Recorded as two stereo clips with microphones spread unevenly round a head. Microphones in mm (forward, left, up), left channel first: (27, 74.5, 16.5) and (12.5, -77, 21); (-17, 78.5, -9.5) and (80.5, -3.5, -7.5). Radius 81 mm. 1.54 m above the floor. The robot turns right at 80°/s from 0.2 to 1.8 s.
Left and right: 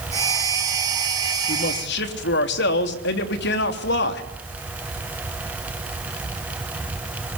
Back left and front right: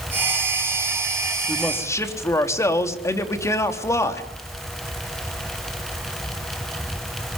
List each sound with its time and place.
1.5 s a man speaking: 45° left, 3.5 m; by 4.2 s 70° left, 3.5 m